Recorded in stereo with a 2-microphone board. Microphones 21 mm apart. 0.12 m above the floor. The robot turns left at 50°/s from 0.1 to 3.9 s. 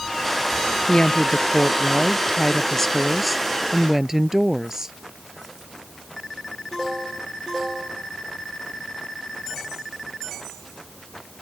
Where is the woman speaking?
125° left; by 5.0 s 30° right.